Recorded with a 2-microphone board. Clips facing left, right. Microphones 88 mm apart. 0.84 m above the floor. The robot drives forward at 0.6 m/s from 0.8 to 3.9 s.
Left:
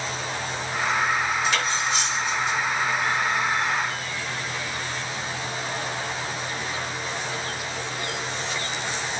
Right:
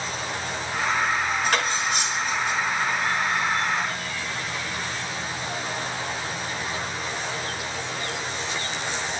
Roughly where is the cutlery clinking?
Right.